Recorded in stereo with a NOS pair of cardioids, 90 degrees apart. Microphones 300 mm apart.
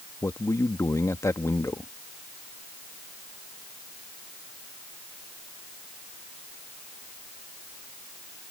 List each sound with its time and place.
0.2 s a man speaking: 10° left